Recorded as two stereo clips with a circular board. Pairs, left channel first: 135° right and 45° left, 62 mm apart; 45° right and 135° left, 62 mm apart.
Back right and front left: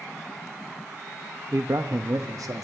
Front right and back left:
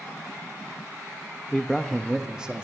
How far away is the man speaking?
About 0.6 m.